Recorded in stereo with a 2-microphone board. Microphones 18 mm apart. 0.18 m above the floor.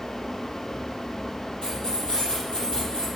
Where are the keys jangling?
75° left (ahead or behind), 3.5 m.